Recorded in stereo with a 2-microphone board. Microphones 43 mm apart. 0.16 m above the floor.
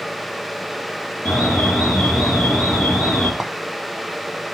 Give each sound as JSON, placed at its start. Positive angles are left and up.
{"t": 1.2, "sound": "an alarm", "side_deg": 40, "distance_m": 4.5}
{"t": 3.4, "sound": "a clink", "side_deg": -10, "distance_m": 0.8}